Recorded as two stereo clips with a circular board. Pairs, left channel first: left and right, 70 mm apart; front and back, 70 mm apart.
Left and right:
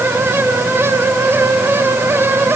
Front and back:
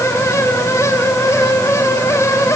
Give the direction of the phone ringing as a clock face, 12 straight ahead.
I don't hear a phone ringing.